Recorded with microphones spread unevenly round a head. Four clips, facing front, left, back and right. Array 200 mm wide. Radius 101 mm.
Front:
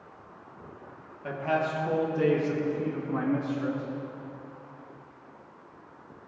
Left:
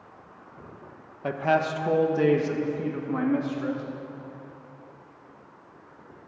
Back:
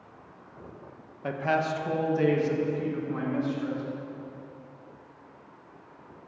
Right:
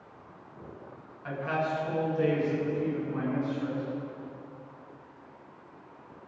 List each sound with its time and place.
1.2 s a man speaking: 115° left, 1.1 m; by 3.8 s 75° left, 2.5 m